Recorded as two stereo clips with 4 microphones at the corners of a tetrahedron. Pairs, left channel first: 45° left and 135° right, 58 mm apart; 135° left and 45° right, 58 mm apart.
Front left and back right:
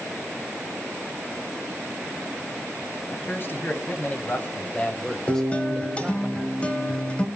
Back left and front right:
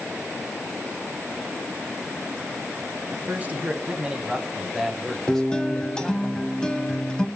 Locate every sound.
3.1 s a man speaking: 5° left, 1.8 m; by 6.3 s 155° left, 1.2 m
5.3 s a guitar: 75° left, 1.0 m